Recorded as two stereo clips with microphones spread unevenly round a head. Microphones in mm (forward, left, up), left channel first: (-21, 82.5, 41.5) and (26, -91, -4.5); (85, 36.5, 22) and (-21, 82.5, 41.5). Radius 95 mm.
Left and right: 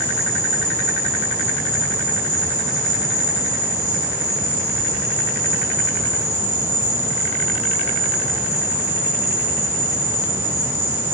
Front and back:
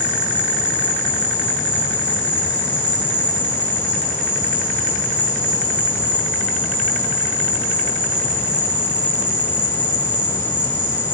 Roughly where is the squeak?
No squeak in this recording.